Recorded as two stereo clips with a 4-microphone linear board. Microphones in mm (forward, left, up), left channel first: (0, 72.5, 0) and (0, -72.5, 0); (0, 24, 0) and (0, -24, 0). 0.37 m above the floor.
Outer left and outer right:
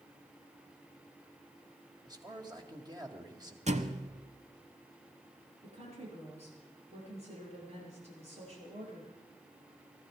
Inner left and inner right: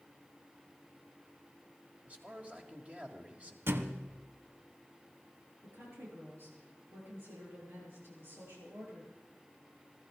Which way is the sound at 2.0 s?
30° right (ahead or behind).